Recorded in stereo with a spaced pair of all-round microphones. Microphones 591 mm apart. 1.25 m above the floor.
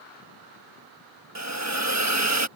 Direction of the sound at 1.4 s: 25° right (ahead or behind).